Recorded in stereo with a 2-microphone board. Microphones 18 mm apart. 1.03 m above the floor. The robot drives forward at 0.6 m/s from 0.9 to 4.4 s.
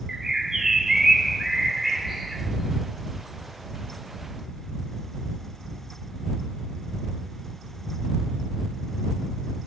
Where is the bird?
30° right (ahead or behind), 0.6 m; by 2.4 s 10° right (ahead or behind), 1.5 m.